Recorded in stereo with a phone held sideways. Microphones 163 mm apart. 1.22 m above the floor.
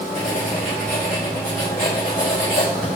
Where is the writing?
60° left (ahead or behind), 4 m.